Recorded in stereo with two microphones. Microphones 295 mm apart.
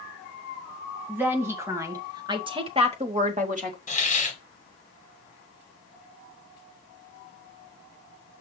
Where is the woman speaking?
5° right (ahead or behind), 2.0 m; by 3.8 s 25° right (ahead or behind), 1.1 m.